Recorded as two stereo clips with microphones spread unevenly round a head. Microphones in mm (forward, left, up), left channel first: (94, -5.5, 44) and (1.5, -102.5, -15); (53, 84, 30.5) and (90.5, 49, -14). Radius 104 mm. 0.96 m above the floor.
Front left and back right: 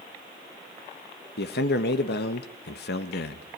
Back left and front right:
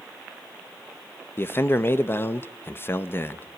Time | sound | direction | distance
1.4 | a man speaking | 60° left | 1.4 m